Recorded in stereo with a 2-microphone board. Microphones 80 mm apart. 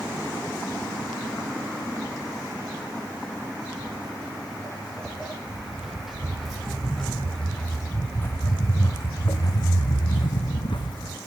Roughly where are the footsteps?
Centre.